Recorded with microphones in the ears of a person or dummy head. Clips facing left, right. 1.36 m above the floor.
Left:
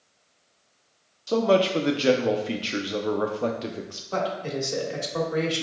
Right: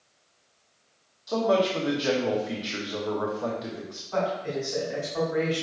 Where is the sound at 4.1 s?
50° left (ahead or behind), 1.5 m.